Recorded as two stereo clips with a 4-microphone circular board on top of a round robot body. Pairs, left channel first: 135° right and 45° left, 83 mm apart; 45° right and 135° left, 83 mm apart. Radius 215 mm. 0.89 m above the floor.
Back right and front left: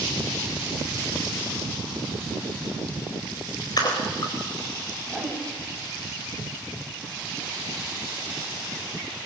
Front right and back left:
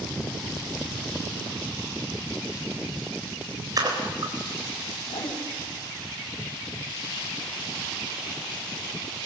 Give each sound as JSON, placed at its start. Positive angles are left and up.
{"t": 3.8, "sound": "a splash", "azimuth_deg": 180, "distance_m": 4.0}
{"t": 5.1, "sound": "a whoosh", "azimuth_deg": -50, "distance_m": 4.5}